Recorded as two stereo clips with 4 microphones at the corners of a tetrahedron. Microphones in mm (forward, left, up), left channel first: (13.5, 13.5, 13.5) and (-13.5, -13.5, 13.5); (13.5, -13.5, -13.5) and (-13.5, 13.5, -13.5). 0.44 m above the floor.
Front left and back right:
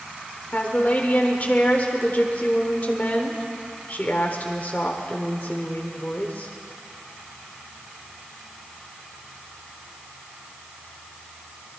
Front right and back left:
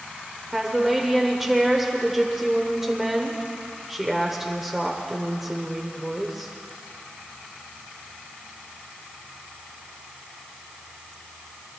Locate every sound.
0.5 s a woman speaking: 60° left, 1.2 m